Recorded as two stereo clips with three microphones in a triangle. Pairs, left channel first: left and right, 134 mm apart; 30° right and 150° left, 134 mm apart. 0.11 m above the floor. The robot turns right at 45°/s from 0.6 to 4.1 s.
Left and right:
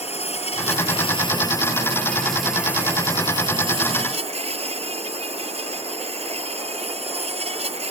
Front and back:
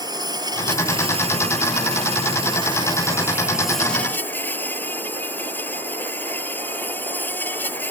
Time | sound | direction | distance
0.0 | an insect | 100° left | ?